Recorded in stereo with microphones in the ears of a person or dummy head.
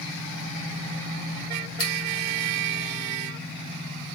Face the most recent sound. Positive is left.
turn(degrees=65)  # may be behind; listen again after turning